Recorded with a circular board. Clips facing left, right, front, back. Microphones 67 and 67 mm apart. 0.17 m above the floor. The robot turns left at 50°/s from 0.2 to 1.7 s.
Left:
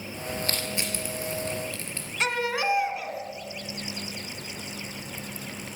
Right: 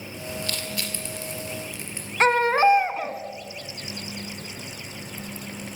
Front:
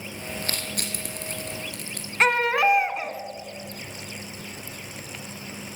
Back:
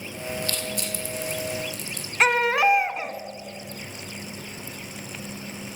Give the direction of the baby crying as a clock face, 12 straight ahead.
3 o'clock.